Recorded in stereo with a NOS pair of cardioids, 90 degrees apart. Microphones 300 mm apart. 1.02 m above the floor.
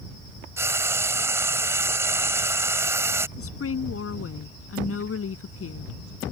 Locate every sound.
0.6 s frying: 10° right
3.4 s a woman speaking: 50° left